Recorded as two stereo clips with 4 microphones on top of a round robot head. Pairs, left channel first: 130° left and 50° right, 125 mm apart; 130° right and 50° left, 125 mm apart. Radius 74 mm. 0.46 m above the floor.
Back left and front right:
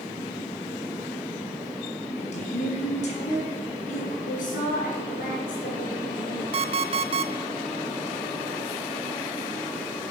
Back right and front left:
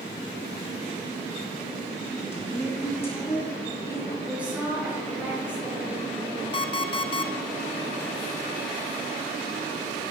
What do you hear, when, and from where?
2.2 s a woman speaking: 160° left, 5.5 m
4.3 s a woman speaking: 130° left, 7 m
6.5 s an alarm clock: 85° right, 1.0 m